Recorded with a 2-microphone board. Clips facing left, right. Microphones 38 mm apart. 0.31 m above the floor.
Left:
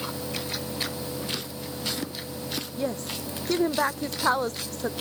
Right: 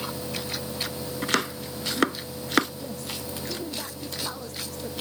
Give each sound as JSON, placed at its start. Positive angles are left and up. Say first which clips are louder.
{"t": 1.2, "sound": "chopping", "louder": "right 7 dB", "side_deg": -75}
{"t": 2.8, "sound": "a woman speaking", "louder": "left 5 dB", "side_deg": 55}